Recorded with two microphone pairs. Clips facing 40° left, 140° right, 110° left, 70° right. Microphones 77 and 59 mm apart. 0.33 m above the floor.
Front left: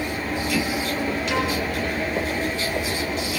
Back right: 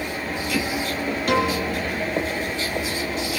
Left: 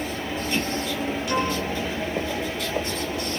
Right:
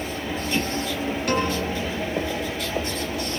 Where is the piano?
105° right, 9 m.